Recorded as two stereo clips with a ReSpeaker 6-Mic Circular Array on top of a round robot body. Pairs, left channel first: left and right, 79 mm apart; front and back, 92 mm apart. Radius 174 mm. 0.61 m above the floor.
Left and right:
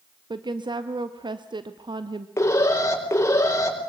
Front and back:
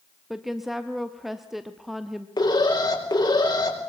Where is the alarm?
40° left, 5 m.